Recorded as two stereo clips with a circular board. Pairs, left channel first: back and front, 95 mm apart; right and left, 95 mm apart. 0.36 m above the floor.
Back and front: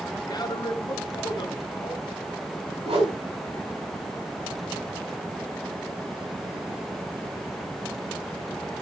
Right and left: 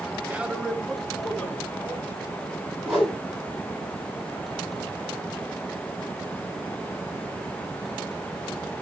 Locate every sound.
0.3 s a man speaking: 155° left, 1.4 m; by 2.1 s 160° right, 2.5 m
2.9 s a whoosh: straight ahead, 6 m